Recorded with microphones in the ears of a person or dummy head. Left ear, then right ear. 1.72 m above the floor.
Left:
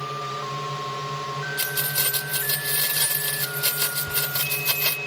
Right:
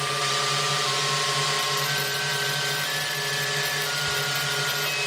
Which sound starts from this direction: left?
Keys jangling, at 1.6 s.